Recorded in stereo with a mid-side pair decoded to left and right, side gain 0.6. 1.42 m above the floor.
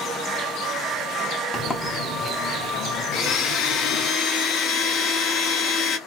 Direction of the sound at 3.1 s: 50° left.